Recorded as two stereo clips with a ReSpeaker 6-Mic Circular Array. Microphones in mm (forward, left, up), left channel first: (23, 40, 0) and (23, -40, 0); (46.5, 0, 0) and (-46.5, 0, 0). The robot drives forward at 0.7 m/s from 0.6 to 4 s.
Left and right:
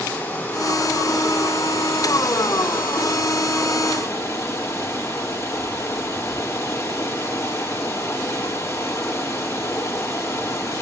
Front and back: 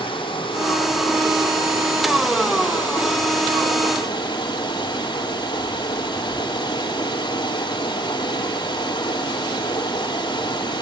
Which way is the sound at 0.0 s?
30° left.